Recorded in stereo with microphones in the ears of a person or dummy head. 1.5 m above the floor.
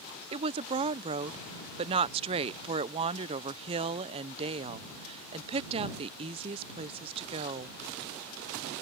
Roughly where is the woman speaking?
Right.